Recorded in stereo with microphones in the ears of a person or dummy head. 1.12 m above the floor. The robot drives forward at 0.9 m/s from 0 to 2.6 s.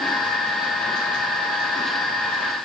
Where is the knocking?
I don't hear knocking.